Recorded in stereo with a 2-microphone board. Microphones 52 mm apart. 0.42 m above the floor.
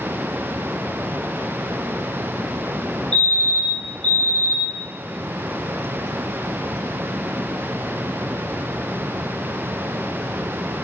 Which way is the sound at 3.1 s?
25° left (ahead or behind).